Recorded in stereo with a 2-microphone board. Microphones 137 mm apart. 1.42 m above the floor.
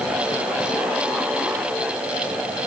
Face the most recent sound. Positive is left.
No sound to turn to.